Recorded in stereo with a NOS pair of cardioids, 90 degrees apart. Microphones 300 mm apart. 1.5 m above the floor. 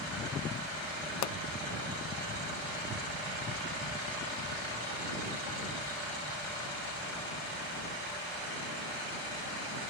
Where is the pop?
65° left.